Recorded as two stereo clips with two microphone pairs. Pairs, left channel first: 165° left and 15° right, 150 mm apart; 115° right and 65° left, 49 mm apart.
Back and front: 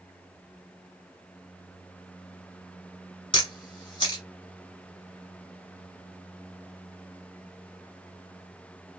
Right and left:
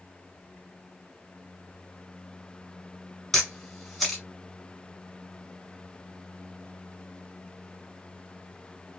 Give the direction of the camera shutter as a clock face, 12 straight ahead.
7 o'clock.